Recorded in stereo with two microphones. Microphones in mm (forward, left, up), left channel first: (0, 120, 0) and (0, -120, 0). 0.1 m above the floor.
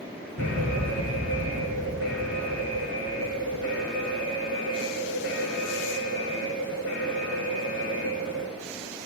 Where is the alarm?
60° right (ahead or behind), 8 m.